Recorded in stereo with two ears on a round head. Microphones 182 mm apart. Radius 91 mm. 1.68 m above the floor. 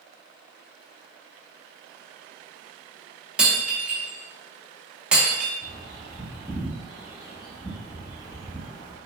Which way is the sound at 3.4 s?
5° right (ahead or behind).